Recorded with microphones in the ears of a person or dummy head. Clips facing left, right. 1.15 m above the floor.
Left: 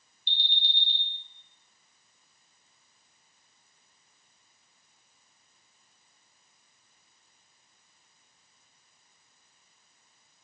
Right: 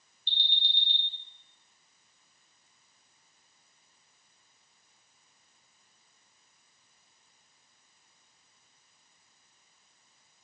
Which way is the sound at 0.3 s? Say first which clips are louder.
Left 2 dB; 75° left (ahead or behind).